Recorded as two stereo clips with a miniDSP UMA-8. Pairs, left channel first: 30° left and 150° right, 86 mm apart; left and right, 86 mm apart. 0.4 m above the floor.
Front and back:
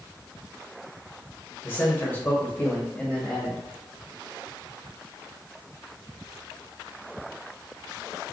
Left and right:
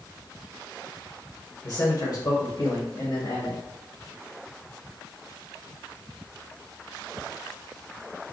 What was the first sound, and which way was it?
A man speaking, 80° left.